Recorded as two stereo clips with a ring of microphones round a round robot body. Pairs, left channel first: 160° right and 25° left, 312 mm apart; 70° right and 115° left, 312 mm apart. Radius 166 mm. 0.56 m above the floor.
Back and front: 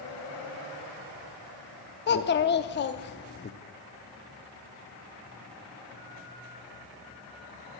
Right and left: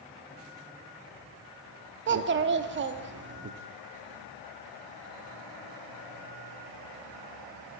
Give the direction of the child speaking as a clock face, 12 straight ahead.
7 o'clock.